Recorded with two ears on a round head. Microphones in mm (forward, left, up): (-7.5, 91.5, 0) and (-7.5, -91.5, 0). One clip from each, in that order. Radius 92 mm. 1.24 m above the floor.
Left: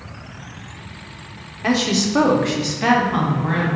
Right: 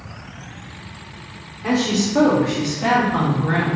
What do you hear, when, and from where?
1.6 s a woman speaking: 60° left (ahead or behind), 0.8 m; by 3.8 s 35° left (ahead or behind), 1.2 m